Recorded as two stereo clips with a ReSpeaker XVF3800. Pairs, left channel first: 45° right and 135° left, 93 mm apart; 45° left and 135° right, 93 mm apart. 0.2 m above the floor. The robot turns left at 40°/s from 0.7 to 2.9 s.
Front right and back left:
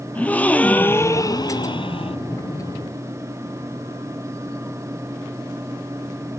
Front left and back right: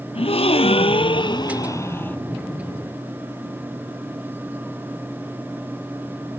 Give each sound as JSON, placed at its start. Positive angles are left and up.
{"t": 0.1, "sound": "a gasp", "azimuth_deg": 30, "distance_m": 0.7}